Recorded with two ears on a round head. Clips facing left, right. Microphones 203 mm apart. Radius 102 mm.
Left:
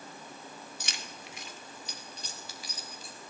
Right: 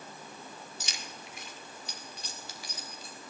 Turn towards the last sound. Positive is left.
turn(degrees=75)  # may be behind; listen again after turning